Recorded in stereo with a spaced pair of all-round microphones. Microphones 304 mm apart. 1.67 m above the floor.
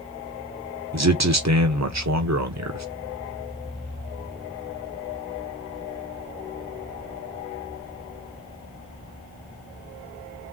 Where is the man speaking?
60° right (ahead or behind), 1.0 m.